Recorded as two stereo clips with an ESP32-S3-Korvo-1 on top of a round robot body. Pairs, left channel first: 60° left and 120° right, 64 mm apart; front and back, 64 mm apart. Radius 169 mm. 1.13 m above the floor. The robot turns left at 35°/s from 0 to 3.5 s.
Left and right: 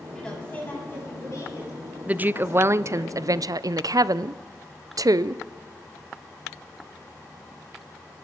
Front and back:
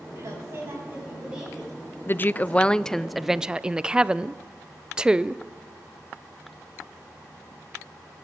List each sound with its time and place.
0.1 s a woman speaking: 140° left, 8 m; by 3.1 s 40° left, 8 m
2.1 s a woman speaking: 55° right, 0.5 m; by 5.4 s 105° right, 0.5 m